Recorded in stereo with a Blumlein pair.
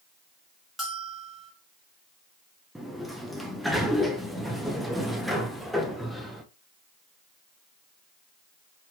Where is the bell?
5° left, 2 m.